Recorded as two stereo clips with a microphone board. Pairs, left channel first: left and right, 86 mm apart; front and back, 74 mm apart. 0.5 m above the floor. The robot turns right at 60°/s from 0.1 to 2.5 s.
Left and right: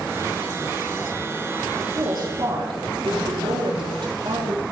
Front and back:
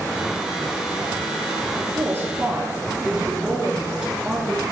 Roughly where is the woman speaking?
Behind right.